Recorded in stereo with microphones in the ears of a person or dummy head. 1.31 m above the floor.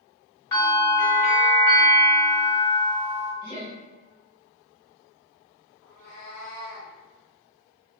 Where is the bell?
20° left (ahead or behind), 1.2 m.